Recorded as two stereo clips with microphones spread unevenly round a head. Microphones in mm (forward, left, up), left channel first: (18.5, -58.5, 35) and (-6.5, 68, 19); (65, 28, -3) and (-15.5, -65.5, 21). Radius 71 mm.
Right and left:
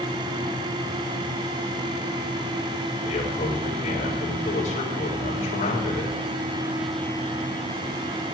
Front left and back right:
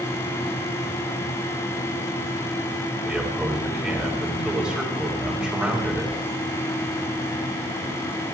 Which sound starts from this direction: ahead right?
A man speaking, at 3.0 s.